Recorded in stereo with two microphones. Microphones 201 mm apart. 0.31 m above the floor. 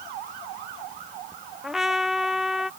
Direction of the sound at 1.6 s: Centre (ahead or behind).